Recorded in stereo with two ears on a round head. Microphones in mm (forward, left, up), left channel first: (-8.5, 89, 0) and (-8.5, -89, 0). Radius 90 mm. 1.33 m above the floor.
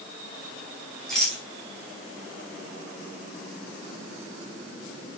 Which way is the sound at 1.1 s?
Centre (ahead or behind).